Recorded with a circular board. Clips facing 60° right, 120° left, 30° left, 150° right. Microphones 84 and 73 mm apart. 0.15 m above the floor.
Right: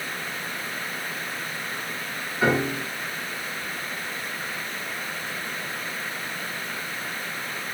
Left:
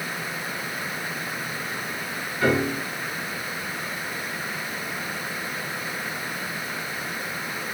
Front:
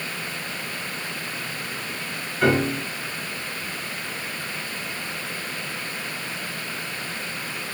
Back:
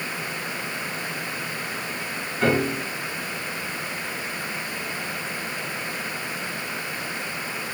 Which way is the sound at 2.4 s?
65° right.